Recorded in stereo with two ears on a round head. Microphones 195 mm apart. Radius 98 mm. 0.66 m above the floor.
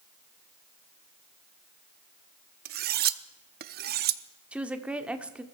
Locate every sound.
2.6 s cutlery clinking: 45° right (ahead or behind), 0.6 m
4.5 s a woman speaking: 5° right (ahead or behind), 1.2 m